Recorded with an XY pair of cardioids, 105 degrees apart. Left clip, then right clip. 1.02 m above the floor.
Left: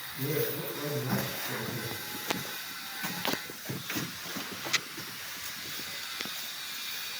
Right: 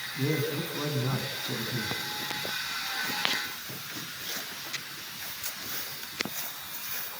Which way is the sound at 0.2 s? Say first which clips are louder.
Right 2 dB; 40° right.